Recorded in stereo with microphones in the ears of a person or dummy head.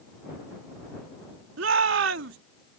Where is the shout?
75° right (ahead or behind).